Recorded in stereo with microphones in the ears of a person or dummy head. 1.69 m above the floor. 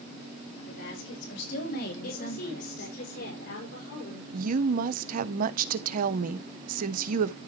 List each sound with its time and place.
0.7 s a woman speaking: 75° left (ahead or behind), 5 m; by 3.0 s 40° left (ahead or behind), 3.5 m
2.0 s a woman speaking: 65° left (ahead or behind), 6 m
4.3 s a woman speaking: 50° right (ahead or behind), 0.7 m